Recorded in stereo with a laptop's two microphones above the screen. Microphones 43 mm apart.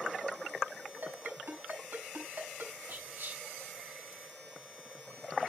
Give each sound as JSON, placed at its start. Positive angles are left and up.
{"t": 1.0, "sound": "a ringtone", "side_deg": -60, "distance_m": 5.5}
{"t": 2.9, "sound": "whispering", "side_deg": -55, "distance_m": 3.0}